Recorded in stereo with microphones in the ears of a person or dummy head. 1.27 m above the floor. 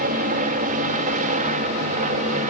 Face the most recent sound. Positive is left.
turn(degrees=-40)  # may be behind; listen again after turning